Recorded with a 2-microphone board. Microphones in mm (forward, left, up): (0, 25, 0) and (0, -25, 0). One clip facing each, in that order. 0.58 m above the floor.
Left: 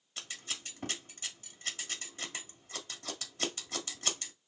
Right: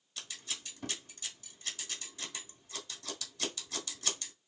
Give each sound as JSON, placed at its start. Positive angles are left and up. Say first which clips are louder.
{"t": 0.2, "sound": "scissors", "louder": "left 2 dB", "side_deg": 35, "distance_m": 1.4}